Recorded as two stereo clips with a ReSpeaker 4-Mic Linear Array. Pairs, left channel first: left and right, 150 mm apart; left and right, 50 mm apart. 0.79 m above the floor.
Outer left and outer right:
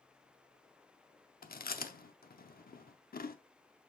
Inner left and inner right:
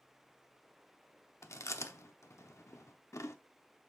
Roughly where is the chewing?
Left.